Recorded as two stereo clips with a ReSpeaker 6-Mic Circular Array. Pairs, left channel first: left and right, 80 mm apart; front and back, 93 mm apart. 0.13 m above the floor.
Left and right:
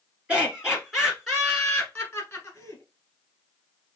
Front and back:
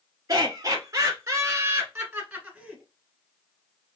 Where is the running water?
I don't hear running water.